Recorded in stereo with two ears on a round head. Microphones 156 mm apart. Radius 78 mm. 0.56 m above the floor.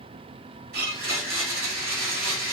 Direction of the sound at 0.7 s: 55° right (ahead or behind).